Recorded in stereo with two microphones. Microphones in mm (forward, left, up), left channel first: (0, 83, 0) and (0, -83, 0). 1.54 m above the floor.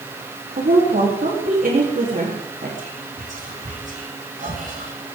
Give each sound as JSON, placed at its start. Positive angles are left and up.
{"t": 0.6, "sound": "a woman speaking", "side_deg": -60, "distance_m": 3.5}
{"t": 2.8, "sound": "whispering", "side_deg": -55, "distance_m": 7.0}